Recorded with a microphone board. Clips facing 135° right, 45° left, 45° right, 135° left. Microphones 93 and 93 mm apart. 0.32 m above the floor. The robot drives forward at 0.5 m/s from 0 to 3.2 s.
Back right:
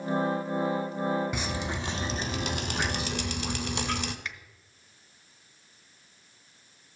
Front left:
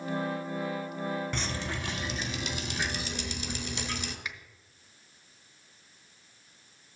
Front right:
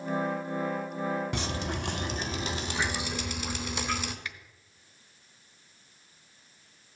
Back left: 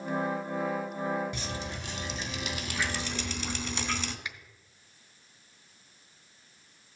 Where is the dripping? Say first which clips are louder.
Back right 2 dB, front right 4 dB; 55° right, 0.8 m; by 4.2 s 125° right, 0.8 m.